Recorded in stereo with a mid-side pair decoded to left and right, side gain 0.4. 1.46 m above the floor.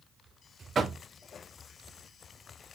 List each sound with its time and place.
0.8 s knocking: 40° right, 0.7 m